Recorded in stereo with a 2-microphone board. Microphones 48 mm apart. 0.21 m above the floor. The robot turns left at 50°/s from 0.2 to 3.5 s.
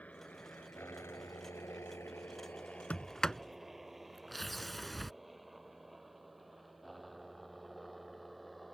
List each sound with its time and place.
0.0 s a helicopter: 30° left (ahead or behind); by 8.8 s centre (ahead or behind)
2.9 s a sliding door: 30° left (ahead or behind); by 5.1 s centre (ahead or behind)